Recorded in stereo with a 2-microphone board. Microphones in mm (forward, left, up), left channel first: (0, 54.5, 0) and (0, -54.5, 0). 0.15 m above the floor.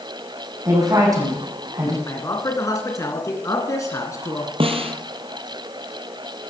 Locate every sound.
0.7 s a woman speaking: 35° right (ahead or behind), 9 m
2.1 s a man speaking: 30° left (ahead or behind), 2.0 m
4.6 s a snare drum: 60° right (ahead or behind), 1.5 m